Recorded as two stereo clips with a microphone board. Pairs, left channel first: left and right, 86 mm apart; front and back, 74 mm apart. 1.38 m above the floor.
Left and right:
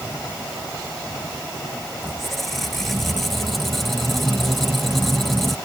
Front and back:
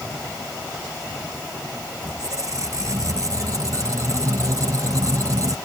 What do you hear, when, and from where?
2.0 s a squeak: 175° left